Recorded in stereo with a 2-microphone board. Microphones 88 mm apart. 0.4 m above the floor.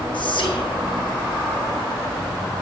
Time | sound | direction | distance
0.1 | whispering | 65° left (ahead or behind) | 6 m